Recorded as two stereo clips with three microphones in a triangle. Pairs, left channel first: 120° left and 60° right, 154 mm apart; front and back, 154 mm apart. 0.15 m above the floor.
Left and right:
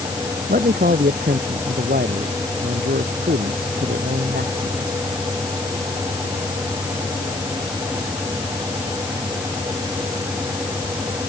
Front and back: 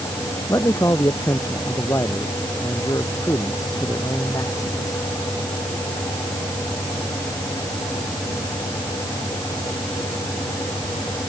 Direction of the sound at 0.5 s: 70° right.